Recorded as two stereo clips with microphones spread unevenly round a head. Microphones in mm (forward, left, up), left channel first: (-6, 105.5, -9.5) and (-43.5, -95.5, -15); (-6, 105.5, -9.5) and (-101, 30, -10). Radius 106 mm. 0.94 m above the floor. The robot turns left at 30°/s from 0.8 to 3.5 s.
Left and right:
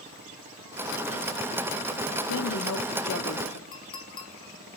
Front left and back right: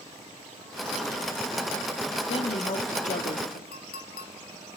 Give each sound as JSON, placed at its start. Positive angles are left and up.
{"t": 2.3, "sound": "a woman speaking", "azimuth_deg": 80, "distance_m": 2.0}
{"t": 3.7, "sound": "a clink", "azimuth_deg": 10, "distance_m": 1.6}